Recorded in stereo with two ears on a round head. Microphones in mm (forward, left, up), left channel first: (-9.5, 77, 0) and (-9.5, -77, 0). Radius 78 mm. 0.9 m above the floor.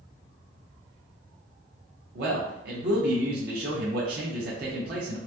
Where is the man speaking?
60° right (ahead or behind), 0.7 m.